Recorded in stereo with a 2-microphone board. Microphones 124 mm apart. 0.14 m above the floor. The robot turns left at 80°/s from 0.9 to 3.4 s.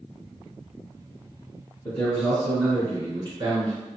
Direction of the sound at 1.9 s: 45° left.